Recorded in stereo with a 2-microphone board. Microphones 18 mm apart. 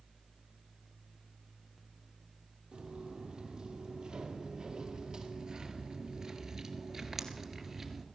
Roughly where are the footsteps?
Right.